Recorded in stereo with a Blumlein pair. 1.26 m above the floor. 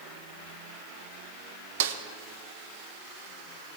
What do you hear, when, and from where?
1.8 s a snare drum: 55° right, 1.1 m